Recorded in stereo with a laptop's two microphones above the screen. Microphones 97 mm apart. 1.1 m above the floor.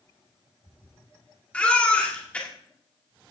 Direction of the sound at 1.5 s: 15° left (ahead or behind).